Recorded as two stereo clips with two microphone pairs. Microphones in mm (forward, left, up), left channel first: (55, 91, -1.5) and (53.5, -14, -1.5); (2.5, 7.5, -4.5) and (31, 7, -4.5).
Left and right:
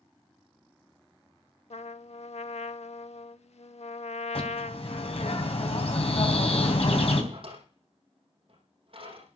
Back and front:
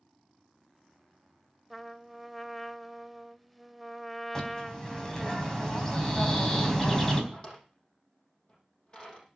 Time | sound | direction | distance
1.7 | a trumpet | 85° left | 0.7 m
4.3 | a bird | 105° left | 3.5 m
7.3 | a drawer | 125° right | 7 m